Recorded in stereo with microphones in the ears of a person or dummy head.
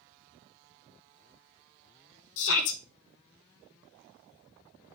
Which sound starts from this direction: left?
A shout, at 2.4 s.